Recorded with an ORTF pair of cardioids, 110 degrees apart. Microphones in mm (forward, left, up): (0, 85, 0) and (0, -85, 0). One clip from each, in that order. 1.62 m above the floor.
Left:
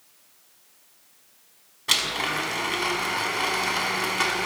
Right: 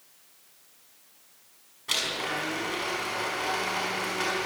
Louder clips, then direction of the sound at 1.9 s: Left 5 dB; 45° left.